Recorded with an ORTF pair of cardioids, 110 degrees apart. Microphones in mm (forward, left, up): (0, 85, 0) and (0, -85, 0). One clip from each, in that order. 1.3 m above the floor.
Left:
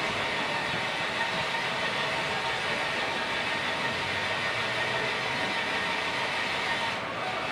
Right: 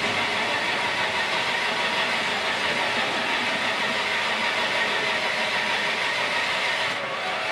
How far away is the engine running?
About 1.1 m.